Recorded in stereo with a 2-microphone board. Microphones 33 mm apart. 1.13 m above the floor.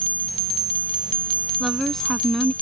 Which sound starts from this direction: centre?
A woman speaking, at 1.6 s.